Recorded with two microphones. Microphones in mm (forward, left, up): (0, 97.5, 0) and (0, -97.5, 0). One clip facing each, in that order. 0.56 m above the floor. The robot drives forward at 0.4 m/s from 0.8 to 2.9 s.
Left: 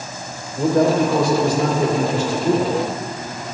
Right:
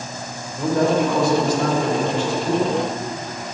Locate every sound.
0.6 s a man speaking: 35° left (ahead or behind), 2.5 m; by 2.8 s 45° left (ahead or behind), 1.9 m